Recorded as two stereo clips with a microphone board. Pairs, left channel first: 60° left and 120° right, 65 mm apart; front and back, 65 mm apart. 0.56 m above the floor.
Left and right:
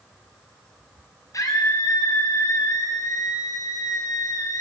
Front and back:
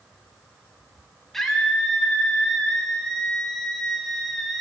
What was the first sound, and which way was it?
A scream, 85° left.